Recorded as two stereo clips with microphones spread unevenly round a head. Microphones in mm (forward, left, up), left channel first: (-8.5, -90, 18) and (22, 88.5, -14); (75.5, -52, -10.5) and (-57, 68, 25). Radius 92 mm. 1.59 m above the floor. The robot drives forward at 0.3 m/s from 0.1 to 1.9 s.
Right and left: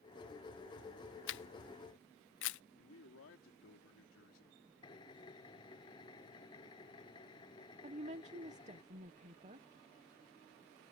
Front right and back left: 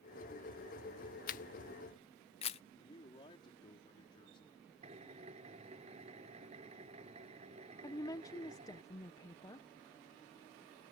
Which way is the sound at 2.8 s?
110° right.